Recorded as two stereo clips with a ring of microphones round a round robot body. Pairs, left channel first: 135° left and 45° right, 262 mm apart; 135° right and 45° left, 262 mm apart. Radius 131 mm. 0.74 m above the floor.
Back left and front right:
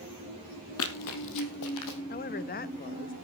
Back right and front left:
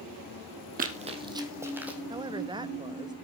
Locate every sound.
0.8 s running footsteps: 100° left, 1.6 m; by 2.0 s 130° left, 2.5 m
2.1 s a woman speaking: 110° left, 0.5 m